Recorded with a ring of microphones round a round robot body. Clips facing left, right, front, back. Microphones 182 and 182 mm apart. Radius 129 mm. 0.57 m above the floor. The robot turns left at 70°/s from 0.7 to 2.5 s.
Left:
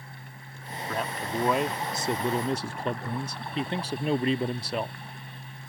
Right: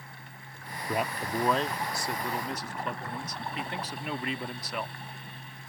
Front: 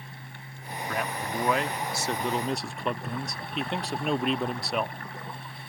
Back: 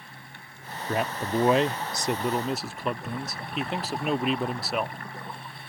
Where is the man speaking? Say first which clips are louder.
Right 1 dB, back 5 dB; 155° right; by 5.0 s 95° left.